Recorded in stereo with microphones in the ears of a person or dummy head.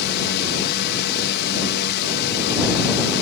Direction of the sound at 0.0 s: 60° left (ahead or behind).